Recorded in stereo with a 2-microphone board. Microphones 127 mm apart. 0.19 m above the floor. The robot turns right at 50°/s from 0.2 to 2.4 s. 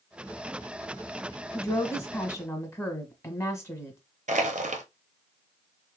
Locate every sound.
1.5 s a woman speaking: 25° left (ahead or behind), 1.1 m; by 4.0 s 20° left (ahead or behind), 1.1 m
4.3 s crushing: 85° right, 0.7 m